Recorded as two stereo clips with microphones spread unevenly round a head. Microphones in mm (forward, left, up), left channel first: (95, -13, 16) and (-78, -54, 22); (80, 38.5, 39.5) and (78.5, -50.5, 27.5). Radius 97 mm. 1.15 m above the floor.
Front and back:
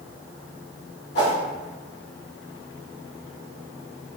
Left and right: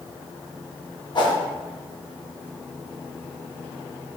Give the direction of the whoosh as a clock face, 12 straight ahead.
10 o'clock.